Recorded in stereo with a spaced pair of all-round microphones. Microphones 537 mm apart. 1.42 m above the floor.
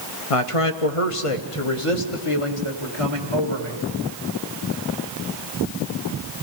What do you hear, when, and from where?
0.3 s a man speaking: 75° left (ahead or behind), 0.9 m; by 3.8 s 65° left (ahead or behind), 3 m